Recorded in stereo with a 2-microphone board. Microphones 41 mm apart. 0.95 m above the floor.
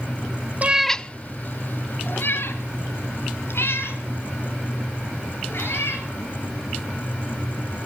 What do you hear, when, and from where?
0.6 s a cat meowing: 35° right (ahead or behind), 0.6 m; by 6.0 s 70° left (ahead or behind), 8 m